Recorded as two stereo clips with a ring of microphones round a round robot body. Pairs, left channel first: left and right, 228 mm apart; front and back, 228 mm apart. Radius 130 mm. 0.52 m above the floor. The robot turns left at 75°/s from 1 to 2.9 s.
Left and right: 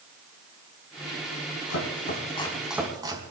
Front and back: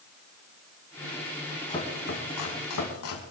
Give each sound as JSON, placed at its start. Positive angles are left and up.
{"t": 1.7, "sound": "chopping", "azimuth_deg": 75, "distance_m": 4.0}